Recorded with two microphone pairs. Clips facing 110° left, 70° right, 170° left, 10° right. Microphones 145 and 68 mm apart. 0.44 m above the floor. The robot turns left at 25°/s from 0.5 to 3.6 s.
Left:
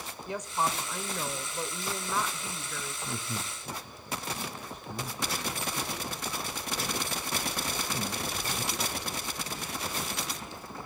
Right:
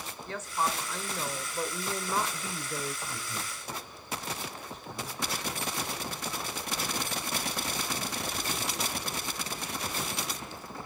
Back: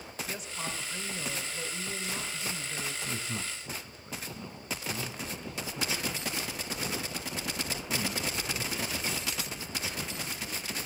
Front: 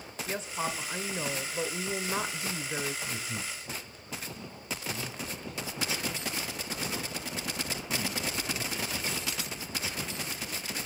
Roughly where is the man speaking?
Behind left.